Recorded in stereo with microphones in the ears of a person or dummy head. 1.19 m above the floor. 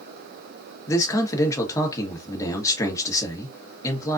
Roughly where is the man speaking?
Left.